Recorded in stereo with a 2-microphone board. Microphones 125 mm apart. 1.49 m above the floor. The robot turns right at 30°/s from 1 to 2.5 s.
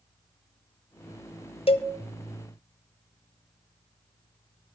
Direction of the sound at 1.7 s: 50° left (ahead or behind).